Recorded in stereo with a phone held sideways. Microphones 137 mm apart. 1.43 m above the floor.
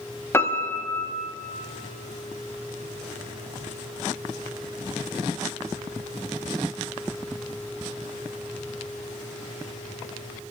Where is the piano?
20° left (ahead or behind), 1.1 m.